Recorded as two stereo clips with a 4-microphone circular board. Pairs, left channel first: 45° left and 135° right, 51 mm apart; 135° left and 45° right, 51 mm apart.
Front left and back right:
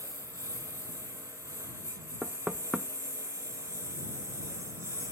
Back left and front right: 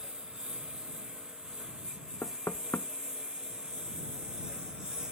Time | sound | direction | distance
0.0 | a lawn mower | 120° right | ?
2.2 | knocking | 160° left | ?